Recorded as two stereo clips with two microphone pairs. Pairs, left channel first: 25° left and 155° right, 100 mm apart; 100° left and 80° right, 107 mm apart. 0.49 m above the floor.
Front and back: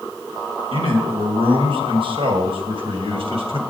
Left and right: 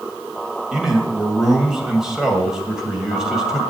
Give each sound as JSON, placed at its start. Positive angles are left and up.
{"t": 0.7, "sound": "a man speaking", "azimuth_deg": -165, "distance_m": 2.5}